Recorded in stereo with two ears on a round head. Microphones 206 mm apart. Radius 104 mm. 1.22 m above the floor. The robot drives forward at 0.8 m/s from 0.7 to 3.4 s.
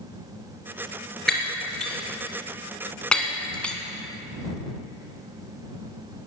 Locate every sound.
1.3 s breaking glass: centre (ahead or behind), 2.5 m; by 3.8 s 5° left (ahead or behind), 1.3 m